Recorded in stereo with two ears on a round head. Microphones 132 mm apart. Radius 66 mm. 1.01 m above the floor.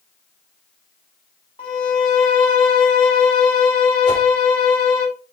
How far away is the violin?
About 1.8 m.